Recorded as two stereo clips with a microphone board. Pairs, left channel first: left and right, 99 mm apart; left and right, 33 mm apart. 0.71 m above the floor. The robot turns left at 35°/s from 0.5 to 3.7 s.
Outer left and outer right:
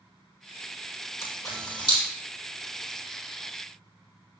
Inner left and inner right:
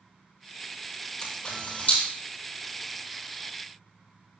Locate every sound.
1.2 s a camera shutter: 30° left (ahead or behind), 6 m; by 2.0 s 55° left (ahead or behind), 6 m